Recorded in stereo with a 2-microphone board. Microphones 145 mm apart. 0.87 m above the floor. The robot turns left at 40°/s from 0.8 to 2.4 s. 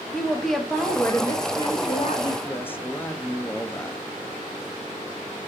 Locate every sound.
0.1 s a woman speaking: straight behind, 1.5 m; by 2.3 s 115° left, 1.5 m
2.4 s a man speaking: 15° left (ahead or behind), 0.8 m